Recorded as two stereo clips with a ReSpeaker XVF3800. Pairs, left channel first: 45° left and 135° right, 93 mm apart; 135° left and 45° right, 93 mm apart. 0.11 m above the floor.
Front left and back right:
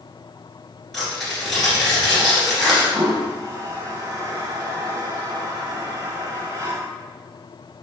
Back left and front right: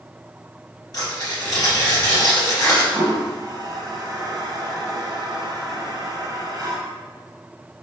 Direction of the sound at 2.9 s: 85° right.